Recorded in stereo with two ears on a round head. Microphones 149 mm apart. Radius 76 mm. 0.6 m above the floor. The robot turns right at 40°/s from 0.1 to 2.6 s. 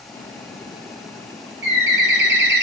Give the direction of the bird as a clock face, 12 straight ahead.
4 o'clock.